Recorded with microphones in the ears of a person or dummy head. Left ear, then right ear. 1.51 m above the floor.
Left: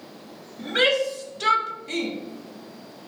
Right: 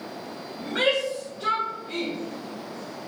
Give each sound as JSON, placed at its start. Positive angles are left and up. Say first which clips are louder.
{"t": 0.6, "sound": "a shout", "louder": "left 3 dB", "side_deg": 40, "distance_m": 1.1}